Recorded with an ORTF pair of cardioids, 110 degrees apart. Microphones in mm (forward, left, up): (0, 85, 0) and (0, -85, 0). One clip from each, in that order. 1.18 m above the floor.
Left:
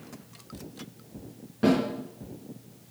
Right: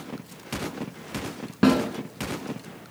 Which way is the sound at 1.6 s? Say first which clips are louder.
Right 3 dB; 65° right.